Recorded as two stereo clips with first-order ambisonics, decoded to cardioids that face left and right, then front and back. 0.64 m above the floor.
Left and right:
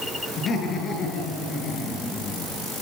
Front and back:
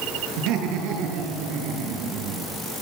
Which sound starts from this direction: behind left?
Laughter, at 0.4 s.